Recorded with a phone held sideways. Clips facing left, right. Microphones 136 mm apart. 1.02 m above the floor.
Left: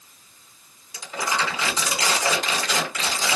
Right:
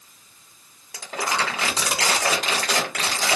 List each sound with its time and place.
0.9 s crumpling: 80° right, 1.5 m